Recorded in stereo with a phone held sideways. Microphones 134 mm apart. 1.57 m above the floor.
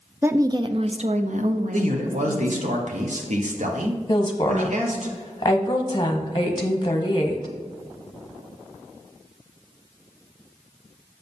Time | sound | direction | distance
0.2 | a woman speaking | 15° right (ahead or behind) | 0.6 m
1.7 | a man speaking | 70° right (ahead or behind) | 1.1 m
4.1 | a woman speaking | 35° left (ahead or behind) | 1.2 m